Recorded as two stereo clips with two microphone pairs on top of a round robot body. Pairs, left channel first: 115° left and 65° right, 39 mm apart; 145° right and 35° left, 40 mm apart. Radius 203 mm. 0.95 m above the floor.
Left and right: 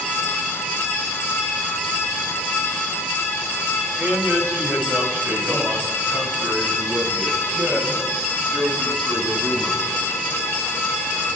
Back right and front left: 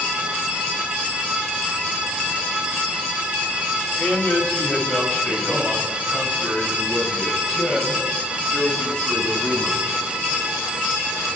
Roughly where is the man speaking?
Right.